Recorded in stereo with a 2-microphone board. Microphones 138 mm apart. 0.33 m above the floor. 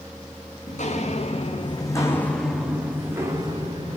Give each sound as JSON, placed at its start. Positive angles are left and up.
{"t": 0.7, "sound": "footsteps", "side_deg": 60, "distance_m": 1.4}